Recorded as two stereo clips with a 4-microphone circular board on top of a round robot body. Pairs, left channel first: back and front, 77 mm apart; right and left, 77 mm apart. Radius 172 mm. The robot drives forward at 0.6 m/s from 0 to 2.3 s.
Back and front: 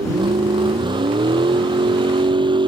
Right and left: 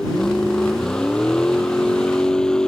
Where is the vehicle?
10° right.